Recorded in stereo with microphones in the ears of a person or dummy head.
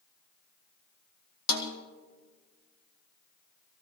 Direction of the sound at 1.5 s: 65° left (ahead or behind).